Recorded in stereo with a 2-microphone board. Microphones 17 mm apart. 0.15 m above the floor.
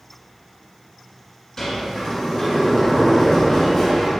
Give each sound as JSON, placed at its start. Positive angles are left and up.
{"t": 1.6, "sound": "a sliding door", "side_deg": 15, "distance_m": 1.5}